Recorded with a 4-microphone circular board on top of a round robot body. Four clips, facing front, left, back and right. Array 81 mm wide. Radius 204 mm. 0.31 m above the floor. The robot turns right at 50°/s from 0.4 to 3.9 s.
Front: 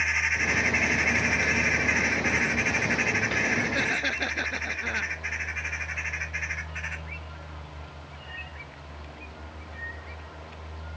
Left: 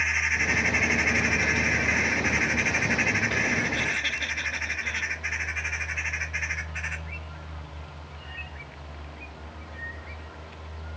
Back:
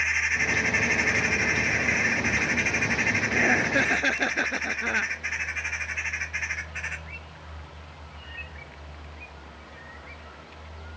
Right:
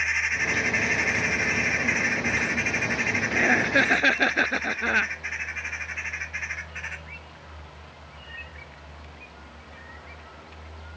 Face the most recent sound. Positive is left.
turn(degrees=-105)